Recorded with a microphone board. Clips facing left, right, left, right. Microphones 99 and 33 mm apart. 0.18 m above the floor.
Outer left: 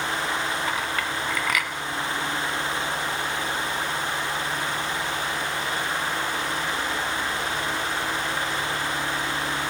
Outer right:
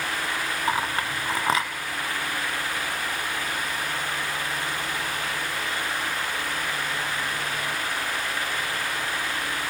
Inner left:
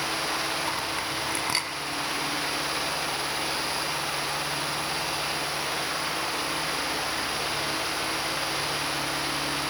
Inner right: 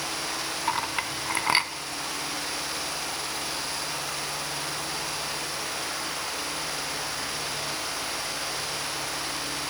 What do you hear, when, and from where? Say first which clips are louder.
0.7 s a clink: outer right 1 dB, inner right 1 dB; 30° right (ahead or behind), 1.3 m